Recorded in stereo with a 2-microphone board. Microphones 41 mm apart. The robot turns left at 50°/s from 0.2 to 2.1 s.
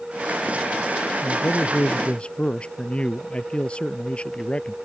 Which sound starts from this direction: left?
A man speaking, at 1.2 s.